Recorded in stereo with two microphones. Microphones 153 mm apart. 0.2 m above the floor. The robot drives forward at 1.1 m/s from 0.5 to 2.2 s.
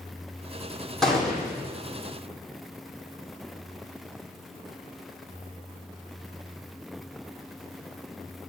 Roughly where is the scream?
I don't hear a scream.